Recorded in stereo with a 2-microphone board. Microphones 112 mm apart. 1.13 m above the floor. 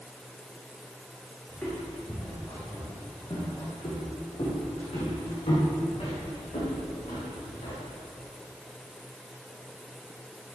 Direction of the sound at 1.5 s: 15° left (ahead or behind).